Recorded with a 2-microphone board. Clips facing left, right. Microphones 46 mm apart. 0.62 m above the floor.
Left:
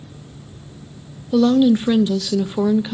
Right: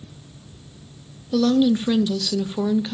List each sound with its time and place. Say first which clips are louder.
1.3 s a woman speaking: left 4 dB; 15° left (ahead or behind), 0.5 m